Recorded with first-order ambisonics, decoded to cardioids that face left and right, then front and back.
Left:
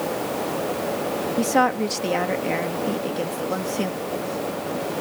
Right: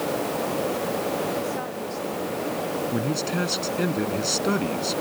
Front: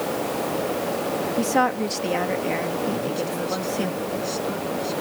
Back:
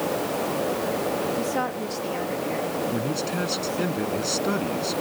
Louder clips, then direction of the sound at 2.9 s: Even, front 1 dB; 115° right.